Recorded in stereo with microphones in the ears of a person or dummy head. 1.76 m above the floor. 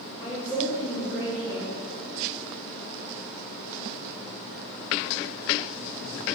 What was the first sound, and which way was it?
A woman speaking, 15° left (ahead or behind).